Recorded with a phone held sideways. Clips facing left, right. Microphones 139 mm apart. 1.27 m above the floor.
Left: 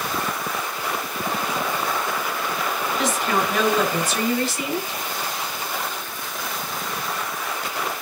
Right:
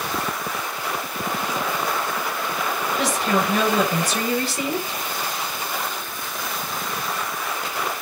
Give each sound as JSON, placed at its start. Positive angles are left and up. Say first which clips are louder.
{"t": 3.0, "sound": "a woman speaking", "louder": "right 1 dB", "side_deg": -45, "distance_m": 5.0}